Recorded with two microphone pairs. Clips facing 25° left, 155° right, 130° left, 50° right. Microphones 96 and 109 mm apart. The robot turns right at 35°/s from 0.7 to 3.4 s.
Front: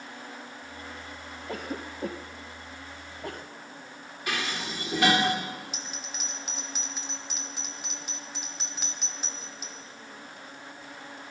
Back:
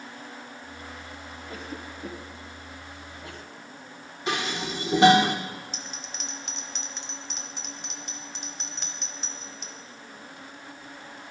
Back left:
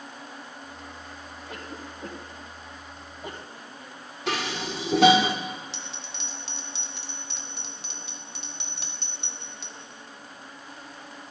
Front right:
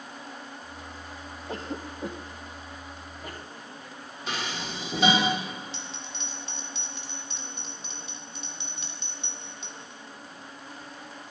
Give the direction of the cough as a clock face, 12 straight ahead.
12 o'clock.